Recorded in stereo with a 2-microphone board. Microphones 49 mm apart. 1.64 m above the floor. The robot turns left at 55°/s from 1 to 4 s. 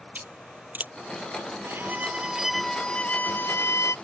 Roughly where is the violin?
Behind right.